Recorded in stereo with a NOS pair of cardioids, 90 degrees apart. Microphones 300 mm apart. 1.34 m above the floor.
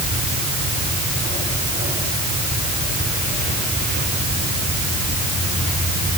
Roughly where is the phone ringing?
I don't hear a phone ringing.